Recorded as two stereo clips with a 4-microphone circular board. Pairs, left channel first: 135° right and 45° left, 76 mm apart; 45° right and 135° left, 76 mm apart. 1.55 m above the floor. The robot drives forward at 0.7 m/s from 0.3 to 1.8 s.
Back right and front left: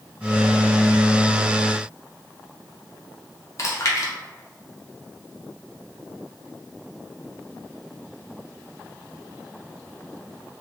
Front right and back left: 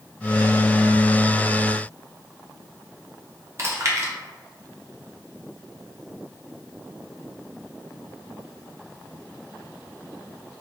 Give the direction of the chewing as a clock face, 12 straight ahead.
6 o'clock.